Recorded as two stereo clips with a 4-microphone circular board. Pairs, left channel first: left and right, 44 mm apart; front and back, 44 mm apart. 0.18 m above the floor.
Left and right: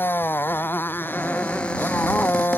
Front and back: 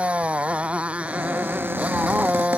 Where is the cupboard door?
160° left.